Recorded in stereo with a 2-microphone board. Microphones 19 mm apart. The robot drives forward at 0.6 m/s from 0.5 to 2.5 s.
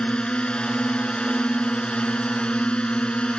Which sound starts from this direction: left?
A drone, at 0.0 s.